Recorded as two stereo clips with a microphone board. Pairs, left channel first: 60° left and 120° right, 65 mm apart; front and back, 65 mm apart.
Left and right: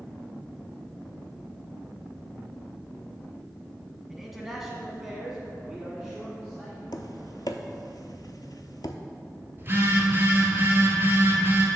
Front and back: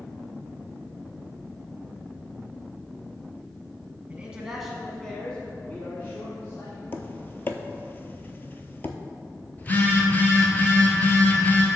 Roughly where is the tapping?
Ahead left.